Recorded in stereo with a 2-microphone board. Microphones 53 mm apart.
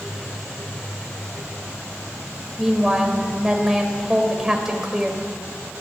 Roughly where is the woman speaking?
Centre.